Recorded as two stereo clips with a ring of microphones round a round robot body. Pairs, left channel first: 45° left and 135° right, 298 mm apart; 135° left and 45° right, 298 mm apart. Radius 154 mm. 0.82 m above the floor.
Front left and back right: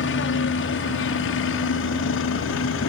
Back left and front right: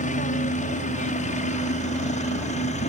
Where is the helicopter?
80° left; by 2.9 s 75° left.